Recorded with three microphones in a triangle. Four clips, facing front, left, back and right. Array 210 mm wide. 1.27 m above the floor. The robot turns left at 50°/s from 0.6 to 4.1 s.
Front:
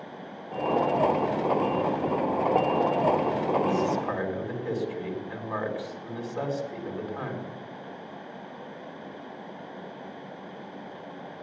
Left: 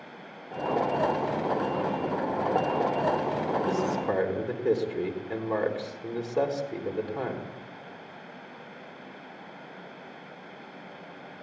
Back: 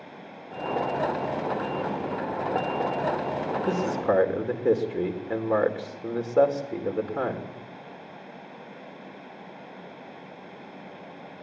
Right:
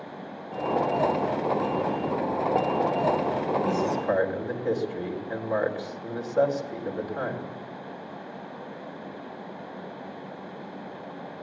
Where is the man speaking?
170° right, 4 m; by 7.5 s 170° left, 4 m.